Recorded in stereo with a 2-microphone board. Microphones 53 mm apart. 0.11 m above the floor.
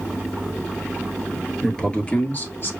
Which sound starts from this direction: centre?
A man speaking, at 1.6 s.